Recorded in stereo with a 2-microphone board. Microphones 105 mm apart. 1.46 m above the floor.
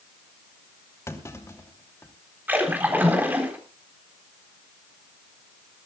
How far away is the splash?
About 3.5 m.